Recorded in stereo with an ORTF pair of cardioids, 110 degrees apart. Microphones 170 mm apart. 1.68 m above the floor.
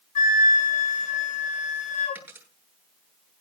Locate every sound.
0.1 s a flute: 50° left, 7 m
2.1 s a dropped coin: 10° right, 9.5 m